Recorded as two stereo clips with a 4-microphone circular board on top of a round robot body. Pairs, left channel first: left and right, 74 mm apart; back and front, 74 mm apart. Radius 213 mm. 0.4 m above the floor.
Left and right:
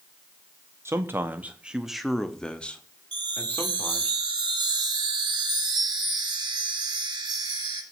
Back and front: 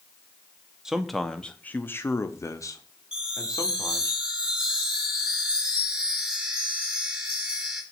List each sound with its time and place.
0.8 s a man speaking: 75° right, 1.2 m; by 4.1 s 150° left, 2 m
3.1 s a chime: 75° right, 3 m